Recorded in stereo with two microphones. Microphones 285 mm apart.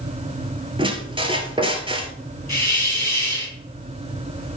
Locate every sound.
0.8 s a squeak: 20° right (ahead or behind), 1.2 m
2.5 s a hiss: 70° left (ahead or behind), 4.5 m